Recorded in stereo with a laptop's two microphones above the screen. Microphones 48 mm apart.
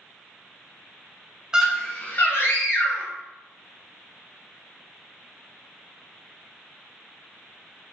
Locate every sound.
1.5 s a scream: 15° right (ahead or behind), 0.5 m; by 3.1 s 65° left (ahead or behind), 1.3 m